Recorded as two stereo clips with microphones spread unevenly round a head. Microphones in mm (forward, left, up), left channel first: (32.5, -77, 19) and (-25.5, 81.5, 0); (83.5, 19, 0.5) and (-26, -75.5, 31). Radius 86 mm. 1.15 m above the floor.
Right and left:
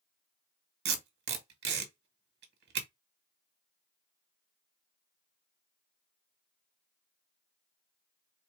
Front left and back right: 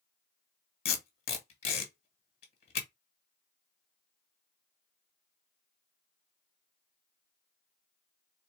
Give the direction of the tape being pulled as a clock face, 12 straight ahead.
9 o'clock.